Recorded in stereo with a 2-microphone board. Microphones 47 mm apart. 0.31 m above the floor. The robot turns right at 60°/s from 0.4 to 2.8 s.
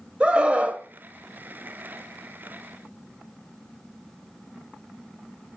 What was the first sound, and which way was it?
A scream, 20° right (ahead or behind).